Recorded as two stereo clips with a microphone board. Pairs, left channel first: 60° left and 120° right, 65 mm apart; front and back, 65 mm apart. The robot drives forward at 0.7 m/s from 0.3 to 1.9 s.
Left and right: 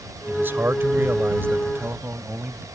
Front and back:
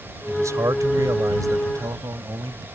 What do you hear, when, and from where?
0.3 s a man speaking: 165° right; by 2.6 s 170° right